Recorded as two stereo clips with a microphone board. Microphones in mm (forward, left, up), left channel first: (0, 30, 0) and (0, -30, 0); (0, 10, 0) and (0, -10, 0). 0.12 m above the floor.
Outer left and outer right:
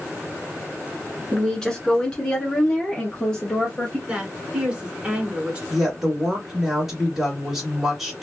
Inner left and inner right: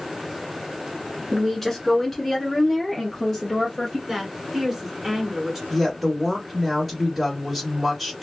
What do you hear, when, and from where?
1.3 s a woman speaking: 10° left (ahead or behind), 1.3 m; by 4.0 s 20° left (ahead or behind), 1.9 m
4.1 s a woman speaking: 20° right (ahead or behind), 1.2 m
5.7 s a woman speaking: centre (ahead or behind), 1.6 m